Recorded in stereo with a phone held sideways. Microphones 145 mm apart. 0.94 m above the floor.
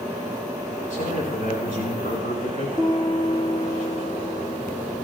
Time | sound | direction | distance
0.9 | a man speaking | 70° left (ahead or behind) | 7.5 m
2.8 | a piano | 25° left (ahead or behind) | 7.5 m